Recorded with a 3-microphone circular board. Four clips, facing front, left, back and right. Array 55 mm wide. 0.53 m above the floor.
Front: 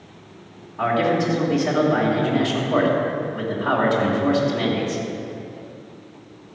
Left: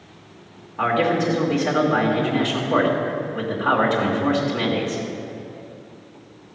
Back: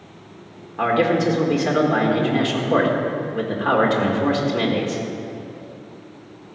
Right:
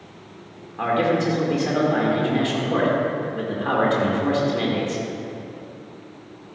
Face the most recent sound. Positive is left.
turn(degrees=170)